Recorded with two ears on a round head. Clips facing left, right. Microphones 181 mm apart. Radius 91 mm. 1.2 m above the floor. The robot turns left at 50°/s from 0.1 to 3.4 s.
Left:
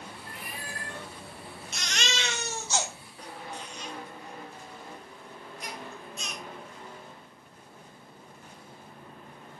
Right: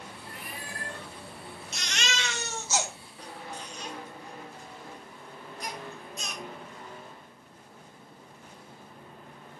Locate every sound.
0.3 s a cat meowing: 115° left, 2.5 m; by 1.1 s 75° left, 2.5 m
1.7 s a baby crying: 45° left (ahead or behind), 0.9 m; by 6.4 s 35° right (ahead or behind), 0.9 m